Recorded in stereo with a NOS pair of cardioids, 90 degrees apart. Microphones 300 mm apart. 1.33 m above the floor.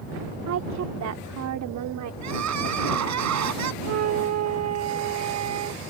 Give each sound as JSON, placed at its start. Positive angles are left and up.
{"t": 0.5, "sound": "a woman speaking", "azimuth_deg": -60}
{"t": 2.2, "sound": "crying", "azimuth_deg": -65}
{"t": 3.8, "sound": "a flute", "azimuth_deg": -60}